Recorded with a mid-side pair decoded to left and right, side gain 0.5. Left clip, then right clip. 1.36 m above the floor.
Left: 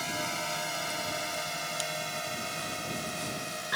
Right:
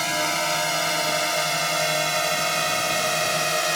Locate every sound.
0.0 s a drone: 55° right; by 3.8 s 70° right